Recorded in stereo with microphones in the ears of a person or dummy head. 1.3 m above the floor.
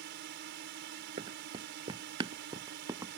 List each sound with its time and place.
0.0 s a drone: 55° right (ahead or behind)
1.2 s running footsteps: 25° right (ahead or behind); by 3.2 s 15° right (ahead or behind)